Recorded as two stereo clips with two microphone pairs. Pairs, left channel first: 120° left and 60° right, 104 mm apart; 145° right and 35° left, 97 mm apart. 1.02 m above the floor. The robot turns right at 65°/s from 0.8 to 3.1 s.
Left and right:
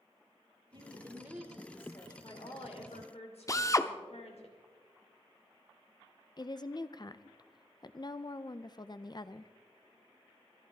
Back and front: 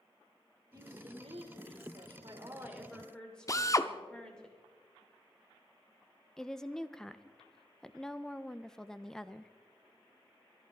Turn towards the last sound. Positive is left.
turn(degrees=135)